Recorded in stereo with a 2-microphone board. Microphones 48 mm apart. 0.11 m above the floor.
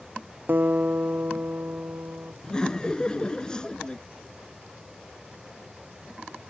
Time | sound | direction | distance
0.5 | a guitar | 45° right (ahead or behind) | ?
2.4 | laughter | 20° left (ahead or behind) | ?